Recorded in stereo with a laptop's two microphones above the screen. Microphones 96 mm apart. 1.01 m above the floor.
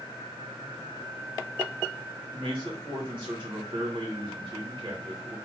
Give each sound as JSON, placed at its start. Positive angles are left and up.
{"t": 2.3, "sound": "a man speaking", "side_deg": -50, "distance_m": 1.4}